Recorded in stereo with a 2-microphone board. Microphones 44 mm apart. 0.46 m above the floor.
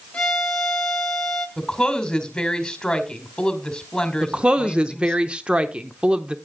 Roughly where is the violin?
Centre.